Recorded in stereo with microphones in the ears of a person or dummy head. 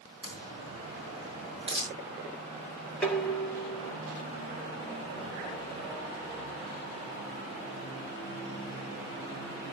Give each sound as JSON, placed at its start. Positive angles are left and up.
{"t": 0.2, "sound": "a crack", "side_deg": -25, "distance_m": 7.5}
{"t": 3.0, "sound": "dishes clattering", "side_deg": 5, "distance_m": 2.5}